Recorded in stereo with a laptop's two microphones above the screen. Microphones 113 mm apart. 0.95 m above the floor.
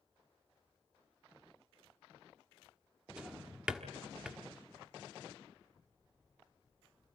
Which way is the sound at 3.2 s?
5° right (ahead or behind).